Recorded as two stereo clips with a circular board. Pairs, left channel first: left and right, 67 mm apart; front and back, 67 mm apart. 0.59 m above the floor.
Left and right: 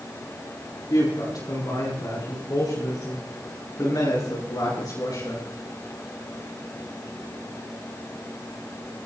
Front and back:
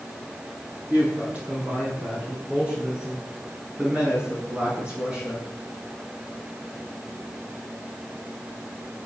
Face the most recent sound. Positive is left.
turn(degrees=105)